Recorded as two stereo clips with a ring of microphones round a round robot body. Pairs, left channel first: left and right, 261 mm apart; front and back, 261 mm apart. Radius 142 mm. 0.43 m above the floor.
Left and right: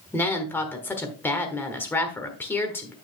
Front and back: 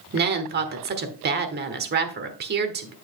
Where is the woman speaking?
170° left, 1.2 m.